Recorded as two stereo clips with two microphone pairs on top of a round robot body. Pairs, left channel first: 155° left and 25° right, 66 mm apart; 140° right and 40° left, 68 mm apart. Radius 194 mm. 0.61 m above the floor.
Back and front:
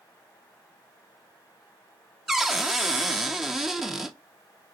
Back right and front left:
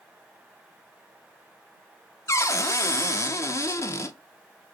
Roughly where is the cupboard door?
Right.